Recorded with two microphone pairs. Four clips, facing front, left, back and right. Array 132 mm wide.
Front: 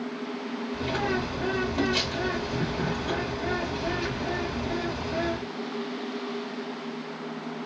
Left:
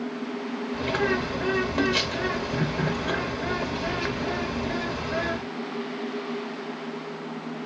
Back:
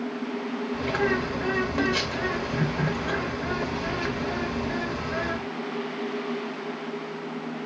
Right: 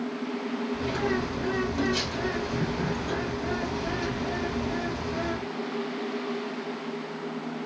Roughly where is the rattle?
No rattle in this recording.